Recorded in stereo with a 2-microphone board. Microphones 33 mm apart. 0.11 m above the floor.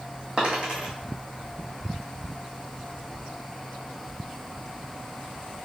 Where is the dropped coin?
35° right (ahead or behind), 1.7 m.